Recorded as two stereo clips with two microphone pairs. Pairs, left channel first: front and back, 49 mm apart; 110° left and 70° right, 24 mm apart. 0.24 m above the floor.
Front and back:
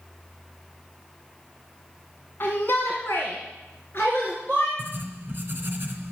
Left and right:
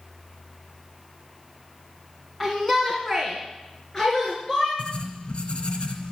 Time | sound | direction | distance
2.4 | a shout | 30° left | 1.8 m
4.8 | writing | 140° left | 1.9 m